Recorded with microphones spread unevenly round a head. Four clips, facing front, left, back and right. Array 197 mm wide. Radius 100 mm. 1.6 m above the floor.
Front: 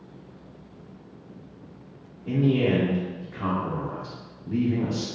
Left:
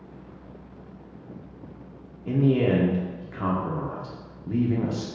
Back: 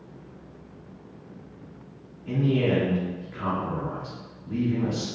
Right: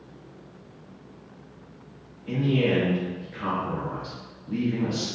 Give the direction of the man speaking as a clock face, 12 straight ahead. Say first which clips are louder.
Left 2 dB, front 2 dB; 10 o'clock.